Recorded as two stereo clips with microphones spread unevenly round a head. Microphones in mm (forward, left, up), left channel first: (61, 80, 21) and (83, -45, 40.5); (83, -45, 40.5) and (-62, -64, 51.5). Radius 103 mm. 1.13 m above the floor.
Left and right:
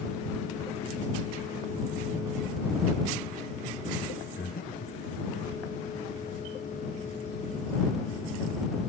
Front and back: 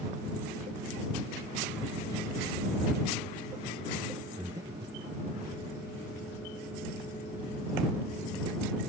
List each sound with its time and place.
4.4 s breathing: 115° left